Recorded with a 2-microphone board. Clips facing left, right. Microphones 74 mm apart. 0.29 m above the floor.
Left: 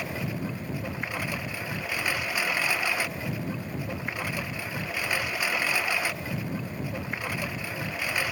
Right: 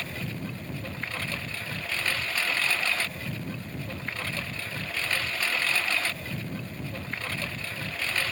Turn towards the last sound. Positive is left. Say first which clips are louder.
# left 3 dB
turn(degrees=15)  # may be behind; listen again after turning